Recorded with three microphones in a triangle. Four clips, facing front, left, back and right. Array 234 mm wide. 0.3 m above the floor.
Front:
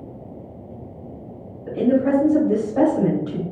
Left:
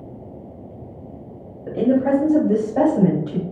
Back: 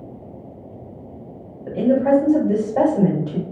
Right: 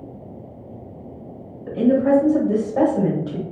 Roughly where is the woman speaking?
Left.